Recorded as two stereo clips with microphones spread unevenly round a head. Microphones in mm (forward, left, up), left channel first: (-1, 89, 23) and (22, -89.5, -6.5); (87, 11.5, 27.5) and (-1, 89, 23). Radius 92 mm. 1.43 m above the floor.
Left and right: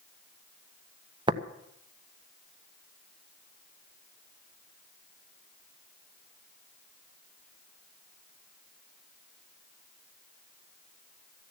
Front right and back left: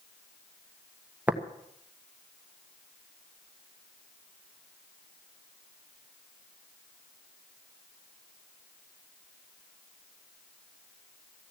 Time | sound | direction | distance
1.3 | tapping | 145° right | 0.9 m